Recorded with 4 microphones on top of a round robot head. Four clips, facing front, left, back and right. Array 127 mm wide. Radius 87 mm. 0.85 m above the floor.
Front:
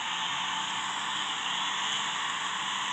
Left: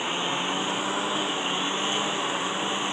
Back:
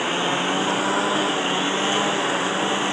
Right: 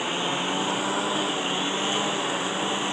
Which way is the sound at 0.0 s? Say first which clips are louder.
Right 1 dB, back 11 dB; 175° right.